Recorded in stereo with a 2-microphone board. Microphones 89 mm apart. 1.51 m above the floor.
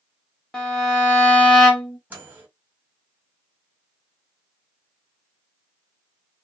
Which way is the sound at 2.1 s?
15° right (ahead or behind).